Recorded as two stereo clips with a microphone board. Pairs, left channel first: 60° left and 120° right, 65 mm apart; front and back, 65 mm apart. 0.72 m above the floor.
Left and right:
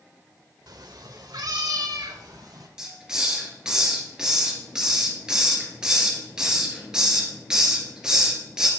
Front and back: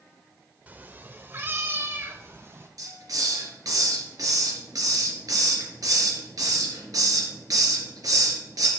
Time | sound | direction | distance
0.7 | a cat meowing | 115° right | 0.7 m
2.8 | a hiss | 160° left | 3 m